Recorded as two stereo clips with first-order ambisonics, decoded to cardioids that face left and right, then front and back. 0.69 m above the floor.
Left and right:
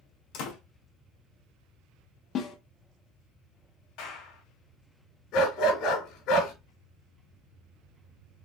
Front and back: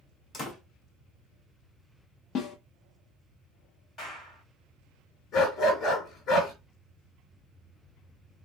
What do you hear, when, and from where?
0.3 s a door slam: 65° left, 2.0 m
2.4 s a snare drum: 40° left, 0.7 m
4.0 s a clap: 60° left, 3 m
5.3 s a dog barking: 50° left, 3 m